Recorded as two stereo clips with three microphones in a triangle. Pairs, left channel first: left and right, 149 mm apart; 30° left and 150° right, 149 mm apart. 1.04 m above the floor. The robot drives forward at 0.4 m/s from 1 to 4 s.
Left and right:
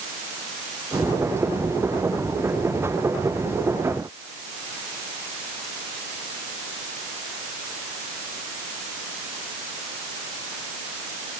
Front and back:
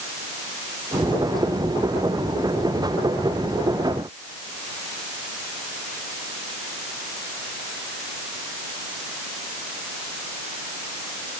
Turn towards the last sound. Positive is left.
No sound to turn to.